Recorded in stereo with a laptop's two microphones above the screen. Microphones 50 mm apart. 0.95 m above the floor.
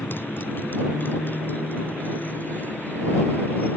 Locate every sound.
0.0 s a motorcycle: 45° left (ahead or behind); by 3.8 s 35° left (ahead or behind)